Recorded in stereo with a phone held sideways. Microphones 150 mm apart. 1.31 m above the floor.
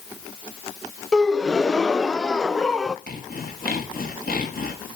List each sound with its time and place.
1.1 s a gasp: 5° left (ahead or behind), 0.5 m
3.1 s sawing: 80° left, 3 m